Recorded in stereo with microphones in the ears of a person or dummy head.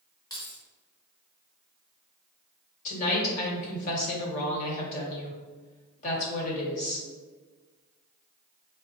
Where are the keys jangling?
25° left (ahead or behind), 1.0 m.